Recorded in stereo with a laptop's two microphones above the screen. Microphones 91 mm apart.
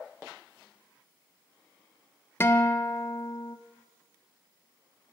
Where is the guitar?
25° left (ahead or behind), 0.5 m.